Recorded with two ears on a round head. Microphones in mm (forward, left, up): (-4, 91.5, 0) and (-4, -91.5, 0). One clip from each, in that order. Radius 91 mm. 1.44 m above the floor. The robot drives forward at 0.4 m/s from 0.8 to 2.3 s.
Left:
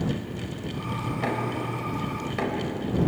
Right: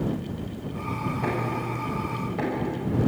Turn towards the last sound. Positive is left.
turn(degrees=75)  # may be behind; listen again after turning